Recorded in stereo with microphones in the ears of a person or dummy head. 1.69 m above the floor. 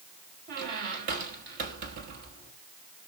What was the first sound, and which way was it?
A squeak, 40° right (ahead or behind).